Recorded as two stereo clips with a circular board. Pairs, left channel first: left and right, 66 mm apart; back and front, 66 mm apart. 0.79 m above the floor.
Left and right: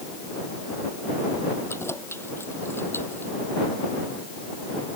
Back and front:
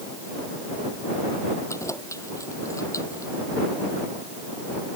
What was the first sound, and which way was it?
Keys jangling, 140° left.